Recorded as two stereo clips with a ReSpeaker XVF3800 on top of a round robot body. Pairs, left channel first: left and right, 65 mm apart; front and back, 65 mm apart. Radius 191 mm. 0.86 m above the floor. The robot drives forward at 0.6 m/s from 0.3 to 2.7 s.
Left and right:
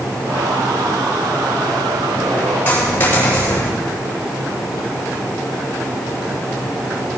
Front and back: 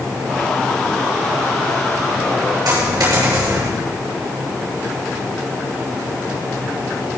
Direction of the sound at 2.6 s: 155° left.